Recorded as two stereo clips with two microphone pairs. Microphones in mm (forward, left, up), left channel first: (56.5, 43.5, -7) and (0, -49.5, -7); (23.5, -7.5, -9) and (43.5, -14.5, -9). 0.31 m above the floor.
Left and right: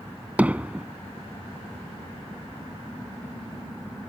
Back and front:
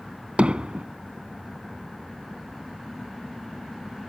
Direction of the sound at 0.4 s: 45° right.